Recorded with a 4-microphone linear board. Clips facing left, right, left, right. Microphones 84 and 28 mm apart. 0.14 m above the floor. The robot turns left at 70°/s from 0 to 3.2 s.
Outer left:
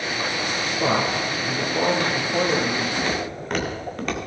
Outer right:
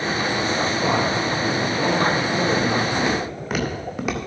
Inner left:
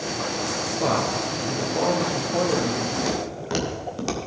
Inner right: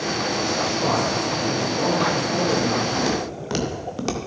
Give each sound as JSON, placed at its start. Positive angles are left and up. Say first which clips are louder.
{"t": 0.8, "sound": "a man speaking", "louder": "outer left 3 dB, inner right 2 dB", "azimuth_deg": 110, "distance_m": 3.0}
{"t": 3.0, "sound": "footsteps", "louder": "outer right 3 dB, inner right 3 dB", "side_deg": -20, "distance_m": 3.0}